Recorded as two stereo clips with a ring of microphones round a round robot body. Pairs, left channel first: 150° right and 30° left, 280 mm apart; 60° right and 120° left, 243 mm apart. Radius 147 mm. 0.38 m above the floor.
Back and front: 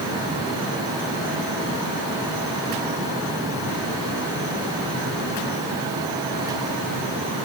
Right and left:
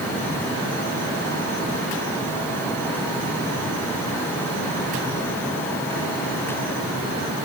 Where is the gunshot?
No gunshot in this recording.